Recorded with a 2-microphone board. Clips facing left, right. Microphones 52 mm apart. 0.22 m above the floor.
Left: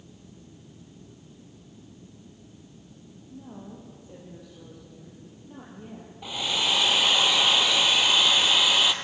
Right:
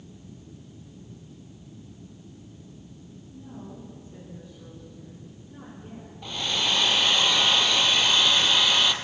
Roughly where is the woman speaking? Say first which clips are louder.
Even; left.